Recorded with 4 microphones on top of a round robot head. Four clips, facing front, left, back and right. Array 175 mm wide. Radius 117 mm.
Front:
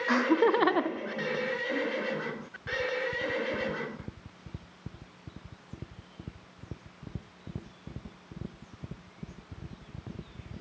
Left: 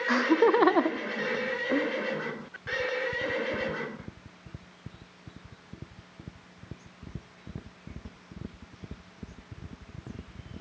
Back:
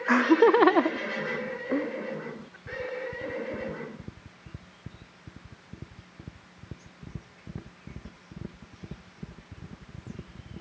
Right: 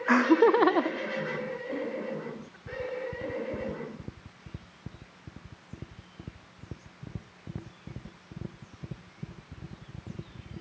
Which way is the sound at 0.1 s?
125° right.